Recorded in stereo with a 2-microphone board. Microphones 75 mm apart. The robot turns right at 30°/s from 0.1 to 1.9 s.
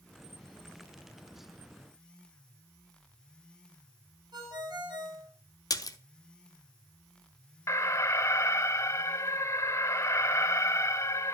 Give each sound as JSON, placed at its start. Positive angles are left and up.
{"t": 4.3, "sound": "a ringtone", "side_deg": -70, "distance_m": 4.5}
{"t": 5.7, "sound": "a splash", "side_deg": 55, "distance_m": 0.9}
{"t": 7.7, "sound": "an alarm", "side_deg": 40, "distance_m": 0.7}